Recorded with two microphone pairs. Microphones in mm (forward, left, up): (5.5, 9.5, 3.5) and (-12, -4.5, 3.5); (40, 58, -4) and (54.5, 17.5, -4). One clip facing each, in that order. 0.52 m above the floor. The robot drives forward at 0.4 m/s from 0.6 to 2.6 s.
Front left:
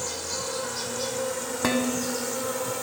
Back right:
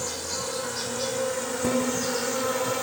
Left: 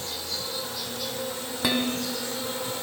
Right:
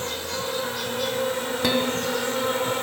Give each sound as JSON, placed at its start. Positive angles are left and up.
{"t": 0.0, "sound": "an insect", "azimuth_deg": -55, "distance_m": 1.9}
{"t": 1.6, "sound": "dishes clattering", "azimuth_deg": 20, "distance_m": 2.5}